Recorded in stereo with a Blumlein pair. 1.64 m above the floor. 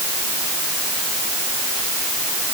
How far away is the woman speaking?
No woman speaking in this recording.